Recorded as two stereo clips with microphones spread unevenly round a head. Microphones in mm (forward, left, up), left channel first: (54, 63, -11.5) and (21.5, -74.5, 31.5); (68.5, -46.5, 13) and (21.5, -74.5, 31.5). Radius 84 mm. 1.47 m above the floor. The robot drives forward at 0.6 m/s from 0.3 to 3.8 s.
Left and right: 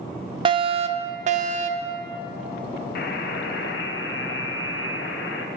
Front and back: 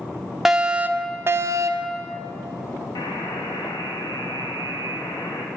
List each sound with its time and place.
0.5 s a fire alarm: 45° right, 0.9 m; by 1.9 s 150° right, 1.0 m
3.0 s a buzzer: 65° left, 1.2 m; by 5.5 s 95° left, 1.1 m